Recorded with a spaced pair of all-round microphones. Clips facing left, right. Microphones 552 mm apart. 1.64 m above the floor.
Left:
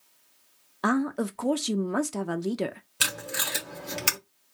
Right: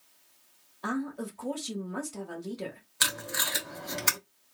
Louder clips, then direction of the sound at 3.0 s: Left 2 dB; 50° left (ahead or behind).